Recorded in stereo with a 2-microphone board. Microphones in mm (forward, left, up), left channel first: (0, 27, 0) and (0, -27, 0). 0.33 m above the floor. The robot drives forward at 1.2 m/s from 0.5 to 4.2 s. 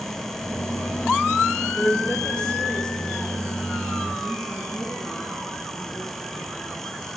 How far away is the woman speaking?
About 1.0 m.